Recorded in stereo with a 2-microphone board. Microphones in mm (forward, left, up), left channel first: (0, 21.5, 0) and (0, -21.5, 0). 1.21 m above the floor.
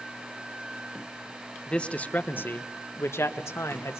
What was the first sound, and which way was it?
A man speaking, 15° left (ahead or behind).